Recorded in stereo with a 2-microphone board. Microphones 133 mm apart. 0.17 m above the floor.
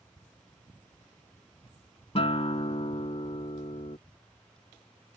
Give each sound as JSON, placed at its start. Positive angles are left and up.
{"t": 2.1, "sound": "a guitar", "side_deg": 45}